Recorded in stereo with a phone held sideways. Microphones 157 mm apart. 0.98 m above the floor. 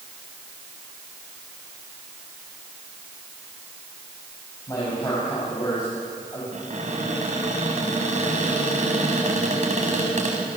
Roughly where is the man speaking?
Left.